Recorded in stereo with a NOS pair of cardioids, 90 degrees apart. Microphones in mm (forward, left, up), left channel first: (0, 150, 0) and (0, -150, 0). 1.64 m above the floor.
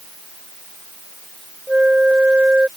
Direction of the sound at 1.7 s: 5° right.